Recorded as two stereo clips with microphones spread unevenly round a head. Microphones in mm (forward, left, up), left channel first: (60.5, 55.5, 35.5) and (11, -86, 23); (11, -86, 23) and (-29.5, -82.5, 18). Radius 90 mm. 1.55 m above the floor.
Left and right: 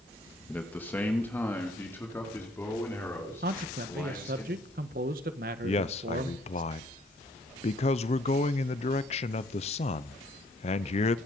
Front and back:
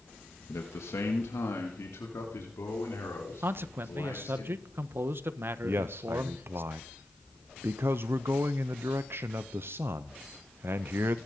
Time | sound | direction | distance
0.5 | a man speaking | 10° right | 1.6 m
3.4 | a man speaking | 155° right | 1.3 m
5.6 | a man speaking | 125° left | 0.7 m